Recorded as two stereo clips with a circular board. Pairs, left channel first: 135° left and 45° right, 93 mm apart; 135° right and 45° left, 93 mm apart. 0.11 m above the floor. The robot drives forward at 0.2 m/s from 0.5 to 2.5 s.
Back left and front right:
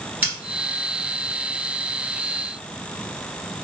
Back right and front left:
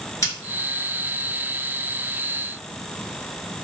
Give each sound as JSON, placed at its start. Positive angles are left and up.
{"t": 0.2, "sound": "scissors", "azimuth_deg": -105, "distance_m": 1.7}